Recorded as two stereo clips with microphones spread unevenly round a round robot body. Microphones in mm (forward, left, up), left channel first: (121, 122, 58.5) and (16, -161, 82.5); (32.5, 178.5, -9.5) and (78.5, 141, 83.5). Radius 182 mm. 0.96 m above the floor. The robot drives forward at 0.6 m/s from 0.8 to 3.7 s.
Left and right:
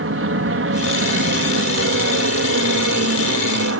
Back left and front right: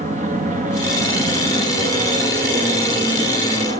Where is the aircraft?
75° right; by 3.8 s 85° right.